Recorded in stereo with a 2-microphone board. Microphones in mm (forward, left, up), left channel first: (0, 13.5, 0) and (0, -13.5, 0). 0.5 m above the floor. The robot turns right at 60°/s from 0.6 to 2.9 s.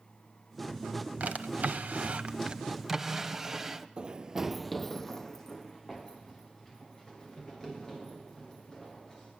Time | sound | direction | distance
1.2 | a drawer | 115° right | 1.0 m
4.0 | running footsteps | 35° right (ahead or behind) | 0.7 m